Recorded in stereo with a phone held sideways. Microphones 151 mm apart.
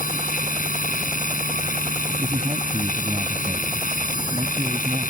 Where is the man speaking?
35° right (ahead or behind).